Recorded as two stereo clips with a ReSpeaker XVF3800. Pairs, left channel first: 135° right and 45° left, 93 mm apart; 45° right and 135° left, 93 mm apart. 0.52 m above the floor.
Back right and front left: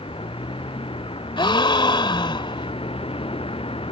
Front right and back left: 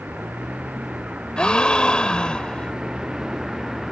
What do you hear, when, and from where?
0.0 s a vehicle: 150° right; by 3.9 s 140° right
1.4 s a gasp: 125° right